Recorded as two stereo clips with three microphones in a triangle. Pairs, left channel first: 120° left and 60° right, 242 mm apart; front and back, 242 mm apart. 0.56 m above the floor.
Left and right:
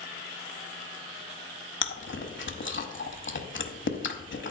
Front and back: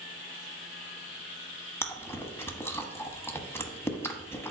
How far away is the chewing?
About 0.9 m.